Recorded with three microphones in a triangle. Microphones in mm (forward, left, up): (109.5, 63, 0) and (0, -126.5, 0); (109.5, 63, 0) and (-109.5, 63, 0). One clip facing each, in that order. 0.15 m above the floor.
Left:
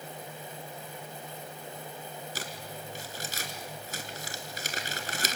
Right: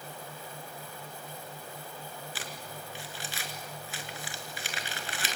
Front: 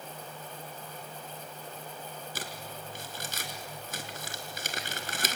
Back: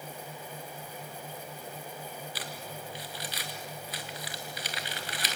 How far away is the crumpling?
About 2.5 m.